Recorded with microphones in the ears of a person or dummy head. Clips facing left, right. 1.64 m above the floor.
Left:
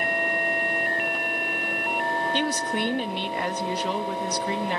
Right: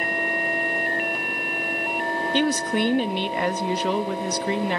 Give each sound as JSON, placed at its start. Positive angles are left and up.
{"t": 2.3, "sound": "a woman speaking", "side_deg": -55, "distance_m": 0.5}